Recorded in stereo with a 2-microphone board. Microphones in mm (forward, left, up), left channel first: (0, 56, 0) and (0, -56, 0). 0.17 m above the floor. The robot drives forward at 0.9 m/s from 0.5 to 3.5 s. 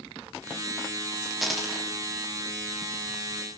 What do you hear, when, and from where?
1.4 s a dropped coin: centre (ahead or behind), 3.5 m